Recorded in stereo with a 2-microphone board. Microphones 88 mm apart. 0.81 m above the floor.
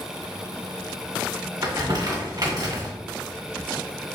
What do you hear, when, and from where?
1.6 s crumpling: 45° right (ahead or behind), 2 m